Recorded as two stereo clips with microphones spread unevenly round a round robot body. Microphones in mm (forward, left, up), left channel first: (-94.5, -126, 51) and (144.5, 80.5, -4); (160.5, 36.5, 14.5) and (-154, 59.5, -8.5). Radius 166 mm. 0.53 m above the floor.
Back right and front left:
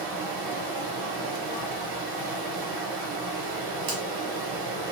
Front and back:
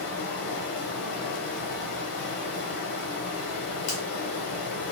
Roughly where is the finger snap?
Ahead.